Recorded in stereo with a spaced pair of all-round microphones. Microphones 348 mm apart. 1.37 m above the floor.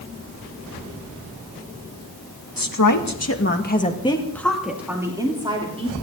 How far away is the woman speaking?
About 1.9 m.